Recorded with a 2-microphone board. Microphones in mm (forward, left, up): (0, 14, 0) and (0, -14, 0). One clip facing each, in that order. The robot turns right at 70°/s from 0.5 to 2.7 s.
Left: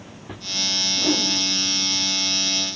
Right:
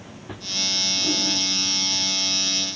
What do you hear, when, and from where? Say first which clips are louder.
1.0 s a whoosh: left 2 dB; 35° left (ahead or behind), 2.0 m; by 1.3 s 60° left (ahead or behind), 2.0 m